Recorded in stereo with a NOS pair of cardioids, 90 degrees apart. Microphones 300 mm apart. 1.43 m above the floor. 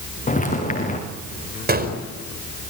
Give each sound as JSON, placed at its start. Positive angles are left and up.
{"t": 0.3, "sound": "footsteps", "azimuth_deg": 25, "distance_m": 7.0}
{"t": 1.7, "sound": "a gunshot", "azimuth_deg": -30, "distance_m": 5.0}